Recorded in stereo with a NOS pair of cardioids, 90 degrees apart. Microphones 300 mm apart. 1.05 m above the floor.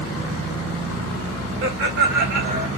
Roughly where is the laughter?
Ahead right.